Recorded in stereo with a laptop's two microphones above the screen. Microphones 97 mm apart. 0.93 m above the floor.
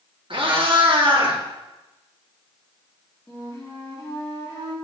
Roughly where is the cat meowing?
Right.